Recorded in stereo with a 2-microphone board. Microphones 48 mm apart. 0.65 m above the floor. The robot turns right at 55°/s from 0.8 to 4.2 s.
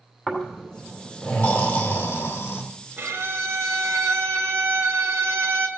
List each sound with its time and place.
0.3 s snoring: 15° left, 2.5 m; by 2.6 s 115° left, 2.5 m
3.0 s a violin: 135° right, 1.0 m; by 5.7 s 65° right, 1.0 m